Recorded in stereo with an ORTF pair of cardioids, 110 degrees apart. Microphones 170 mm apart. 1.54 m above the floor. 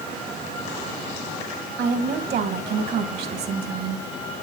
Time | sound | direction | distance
1.8 | a woman speaking | 70° right | 2.5 m